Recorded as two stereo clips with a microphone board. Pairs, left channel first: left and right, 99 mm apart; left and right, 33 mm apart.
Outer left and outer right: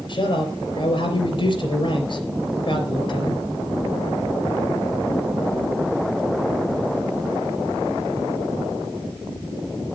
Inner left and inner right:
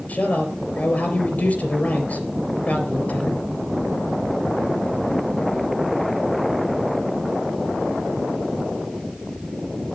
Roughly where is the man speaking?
Left.